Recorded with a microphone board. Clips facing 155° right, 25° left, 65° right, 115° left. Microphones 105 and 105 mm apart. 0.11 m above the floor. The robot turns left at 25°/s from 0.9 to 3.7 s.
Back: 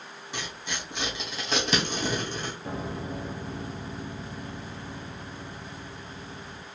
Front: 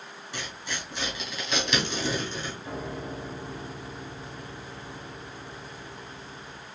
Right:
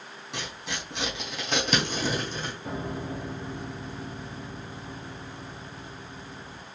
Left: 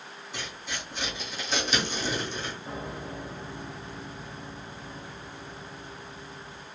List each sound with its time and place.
0.3 s tearing paper: 85° right, 2.5 m; by 2.5 s 125° right, 2.5 m
2.6 s a piano: 115° right, 1.7 m; by 6.7 s 140° right, 1.7 m